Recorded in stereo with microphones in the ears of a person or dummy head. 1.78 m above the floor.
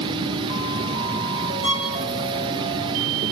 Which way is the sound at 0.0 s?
25° right (ahead or behind).